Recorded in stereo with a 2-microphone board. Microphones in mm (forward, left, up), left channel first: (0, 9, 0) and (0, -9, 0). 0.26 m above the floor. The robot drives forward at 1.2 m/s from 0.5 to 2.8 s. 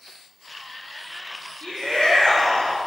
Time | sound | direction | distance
1.6 | a shout | 55° left (ahead or behind) | 9 m